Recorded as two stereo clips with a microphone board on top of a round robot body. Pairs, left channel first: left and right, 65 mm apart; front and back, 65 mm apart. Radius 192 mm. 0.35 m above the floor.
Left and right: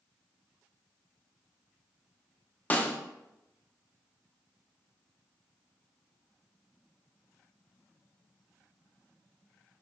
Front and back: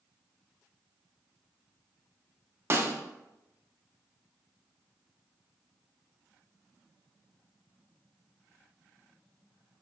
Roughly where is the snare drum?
Behind left.